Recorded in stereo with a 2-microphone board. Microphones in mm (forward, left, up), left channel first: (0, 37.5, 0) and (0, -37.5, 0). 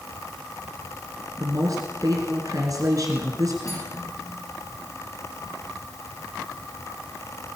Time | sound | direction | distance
1.4 | a woman speaking | 50° right (ahead or behind) | 2.5 m
3.6 | cutlery clinking | 50° left (ahead or behind) | 7.5 m